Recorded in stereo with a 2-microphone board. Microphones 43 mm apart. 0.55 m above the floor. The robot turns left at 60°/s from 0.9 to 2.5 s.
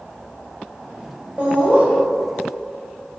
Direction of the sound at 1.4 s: 30° right (ahead or behind).